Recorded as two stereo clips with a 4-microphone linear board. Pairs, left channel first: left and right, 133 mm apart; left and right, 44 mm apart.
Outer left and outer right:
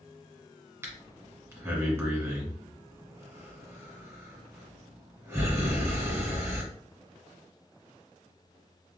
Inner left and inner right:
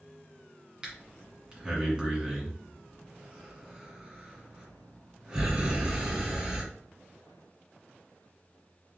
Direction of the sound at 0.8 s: 20° right (ahead or behind).